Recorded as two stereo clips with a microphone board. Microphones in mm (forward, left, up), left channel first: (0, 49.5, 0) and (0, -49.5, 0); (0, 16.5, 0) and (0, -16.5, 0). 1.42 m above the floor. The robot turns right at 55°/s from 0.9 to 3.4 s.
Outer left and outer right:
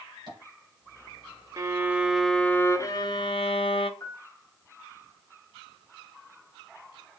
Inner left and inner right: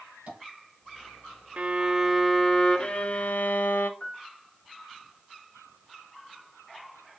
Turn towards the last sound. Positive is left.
turn(degrees=30)  # may be behind; listen again after turning